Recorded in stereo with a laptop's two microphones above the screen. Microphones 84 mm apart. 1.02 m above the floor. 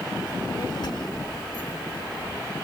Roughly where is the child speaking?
Left.